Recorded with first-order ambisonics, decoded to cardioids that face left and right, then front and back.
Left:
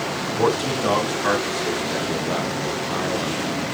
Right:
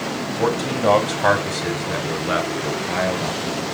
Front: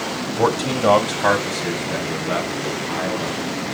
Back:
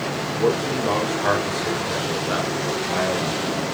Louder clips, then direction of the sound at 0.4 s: Even, front 3 dB; 10° left.